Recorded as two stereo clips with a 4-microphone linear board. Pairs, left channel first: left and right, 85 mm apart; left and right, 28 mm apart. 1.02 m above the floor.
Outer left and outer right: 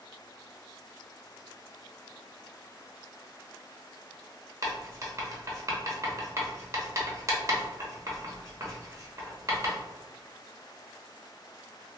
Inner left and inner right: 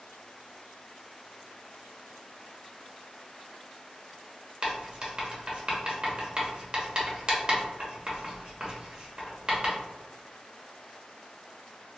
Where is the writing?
35° right (ahead or behind), 0.8 m.